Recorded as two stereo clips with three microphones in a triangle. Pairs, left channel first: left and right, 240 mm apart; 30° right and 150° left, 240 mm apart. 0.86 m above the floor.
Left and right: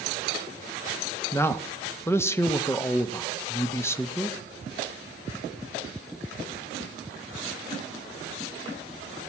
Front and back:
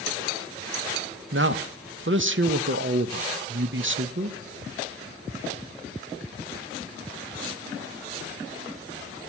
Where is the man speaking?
165° left, 0.7 m.